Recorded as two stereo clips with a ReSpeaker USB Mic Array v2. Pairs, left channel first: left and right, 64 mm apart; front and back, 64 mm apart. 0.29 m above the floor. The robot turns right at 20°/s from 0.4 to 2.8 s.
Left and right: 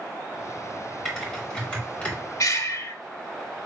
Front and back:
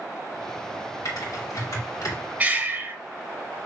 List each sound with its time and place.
1.1 s typing on a keyboard: 5° left, 2 m; by 2.1 s 30° left, 2 m
2.4 s breathing: 115° left, 0.5 m; by 3.0 s 125° left, 0.5 m